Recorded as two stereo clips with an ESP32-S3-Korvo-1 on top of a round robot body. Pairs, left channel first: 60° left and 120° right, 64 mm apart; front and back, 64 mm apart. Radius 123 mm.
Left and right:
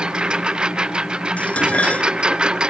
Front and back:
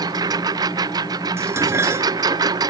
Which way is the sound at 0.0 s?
165° left.